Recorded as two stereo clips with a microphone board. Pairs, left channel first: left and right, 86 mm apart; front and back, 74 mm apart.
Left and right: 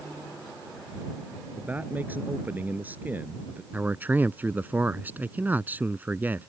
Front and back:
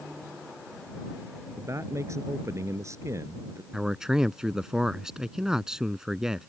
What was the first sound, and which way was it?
A man speaking, 150° right.